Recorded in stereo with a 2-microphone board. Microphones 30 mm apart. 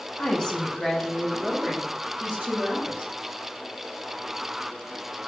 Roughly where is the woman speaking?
Left.